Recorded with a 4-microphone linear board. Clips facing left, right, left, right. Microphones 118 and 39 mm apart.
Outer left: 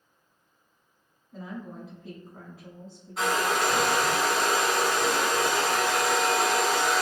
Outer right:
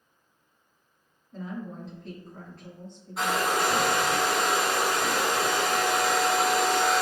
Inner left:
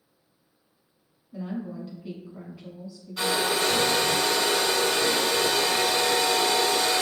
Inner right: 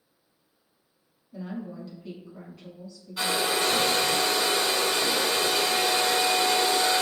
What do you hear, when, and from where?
1.3 s a woman speaking: 5° left (ahead or behind), 1.0 m
3.2 s a hair dryer: centre (ahead or behind), 1.3 m